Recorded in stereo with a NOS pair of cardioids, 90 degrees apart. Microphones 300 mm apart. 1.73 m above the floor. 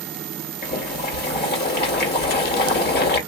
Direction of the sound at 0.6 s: 35° left.